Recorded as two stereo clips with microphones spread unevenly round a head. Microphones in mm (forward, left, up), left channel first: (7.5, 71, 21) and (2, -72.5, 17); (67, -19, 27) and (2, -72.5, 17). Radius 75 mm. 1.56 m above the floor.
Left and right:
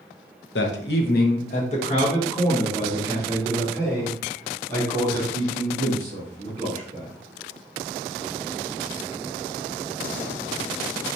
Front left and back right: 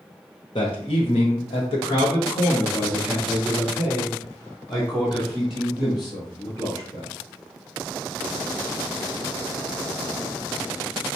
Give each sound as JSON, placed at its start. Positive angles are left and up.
{"t": 0.6, "sound": "a man speaking", "azimuth_deg": 95, "distance_m": 0.8}